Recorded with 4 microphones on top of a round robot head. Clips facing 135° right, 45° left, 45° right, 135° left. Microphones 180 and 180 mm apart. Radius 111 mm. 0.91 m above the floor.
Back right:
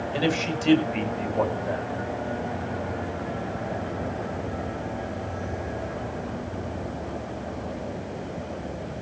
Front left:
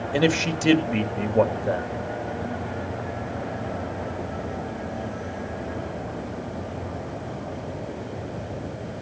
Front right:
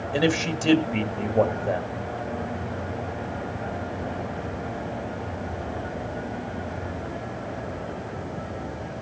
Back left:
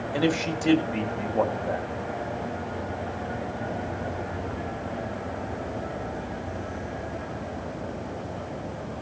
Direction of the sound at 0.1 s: 20° left.